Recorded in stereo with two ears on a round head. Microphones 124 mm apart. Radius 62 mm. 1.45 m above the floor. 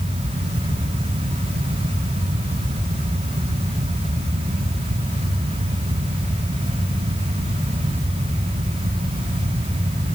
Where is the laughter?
No laughter in this recording.